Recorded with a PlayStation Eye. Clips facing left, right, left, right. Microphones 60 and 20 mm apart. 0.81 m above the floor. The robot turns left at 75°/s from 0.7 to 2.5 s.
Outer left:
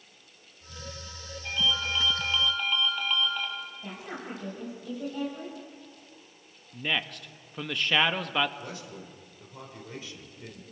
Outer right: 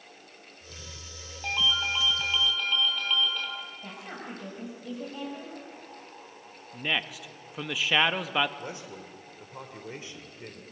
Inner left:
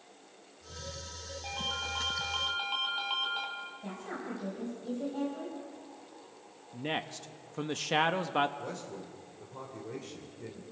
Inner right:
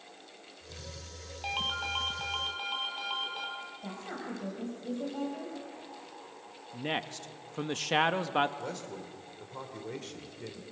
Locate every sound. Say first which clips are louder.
1.4 s a ringtone: outer right 2 dB, inner right 3 dB; 110° right, 4 m; by 3.5 s 165° left, 4 m
3.8 s a woman speaking: outer left 1 dB, even; 5° right (ahead or behind), 4.5 m
6.7 s a man speaking: even, inner right 1 dB; 5° right (ahead or behind), 0.9 m
8.6 s a man speaking: outer right 1 dB, inner right 1 dB; 25° right (ahead or behind), 3 m